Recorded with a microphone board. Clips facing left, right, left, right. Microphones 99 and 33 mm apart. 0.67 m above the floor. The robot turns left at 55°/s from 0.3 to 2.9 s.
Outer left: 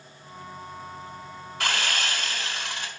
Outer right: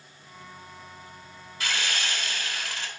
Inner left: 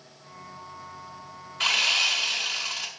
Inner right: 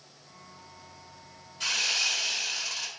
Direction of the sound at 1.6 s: 90° left.